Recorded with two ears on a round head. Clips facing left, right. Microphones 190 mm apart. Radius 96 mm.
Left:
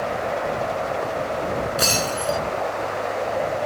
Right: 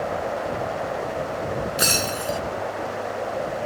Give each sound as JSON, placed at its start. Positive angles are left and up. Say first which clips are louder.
{"t": 1.8, "sound": "breaking glass", "louder": "left 2 dB", "side_deg": -15}